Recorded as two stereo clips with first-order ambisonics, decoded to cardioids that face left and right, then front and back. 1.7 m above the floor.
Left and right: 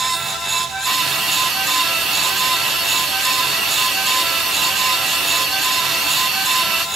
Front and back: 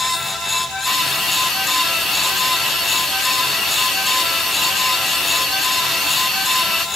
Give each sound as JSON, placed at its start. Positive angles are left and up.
{"t": 0.9, "sound": "a hiss", "azimuth_deg": -55, "distance_m": 0.8}